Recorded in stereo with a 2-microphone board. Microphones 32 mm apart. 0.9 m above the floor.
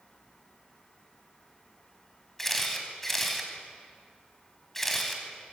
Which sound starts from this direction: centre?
A camera shutter, at 2.4 s.